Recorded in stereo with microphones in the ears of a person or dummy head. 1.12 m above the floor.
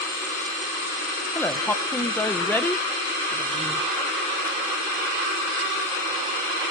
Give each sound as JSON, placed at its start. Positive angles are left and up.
{"t": 1.4, "sound": "a woman speaking", "side_deg": 10, "distance_m": 0.5}